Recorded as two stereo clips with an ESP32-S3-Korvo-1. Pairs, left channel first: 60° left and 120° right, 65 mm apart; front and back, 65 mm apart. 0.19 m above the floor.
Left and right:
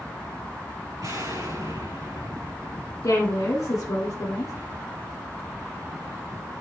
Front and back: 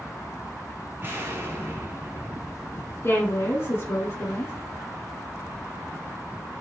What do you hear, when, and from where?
1.0 s an explosion: 125° right, 4 m
3.0 s a woman speaking: 35° left, 2 m